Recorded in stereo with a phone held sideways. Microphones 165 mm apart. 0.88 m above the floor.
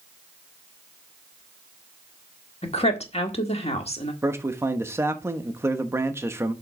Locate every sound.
2.6 s a woman speaking: 40° left (ahead or behind), 1.7 m
4.2 s a man speaking: 15° right (ahead or behind), 0.9 m